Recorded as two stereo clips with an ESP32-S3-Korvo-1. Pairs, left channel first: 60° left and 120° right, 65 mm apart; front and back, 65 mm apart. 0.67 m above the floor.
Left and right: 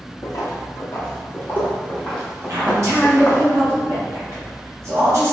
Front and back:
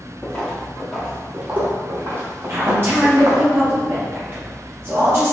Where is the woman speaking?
140° right, 1.0 m.